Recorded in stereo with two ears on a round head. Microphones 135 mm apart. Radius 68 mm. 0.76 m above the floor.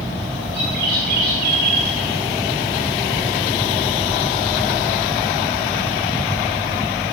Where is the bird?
70° right (ahead or behind), 5 m.